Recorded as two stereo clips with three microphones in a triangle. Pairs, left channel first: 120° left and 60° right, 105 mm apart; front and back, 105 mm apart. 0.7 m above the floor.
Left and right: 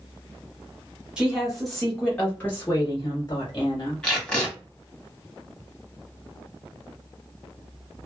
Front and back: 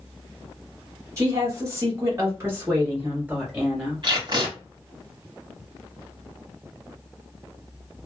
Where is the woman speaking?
140° right, 1.2 m; by 4.0 s 105° left, 1.3 m.